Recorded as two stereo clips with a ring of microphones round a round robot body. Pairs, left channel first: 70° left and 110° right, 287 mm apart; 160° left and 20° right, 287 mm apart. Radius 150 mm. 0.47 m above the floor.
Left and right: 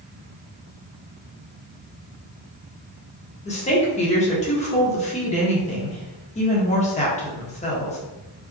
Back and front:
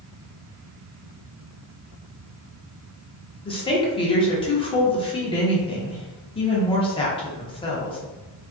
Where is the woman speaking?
105° left, 1.1 m.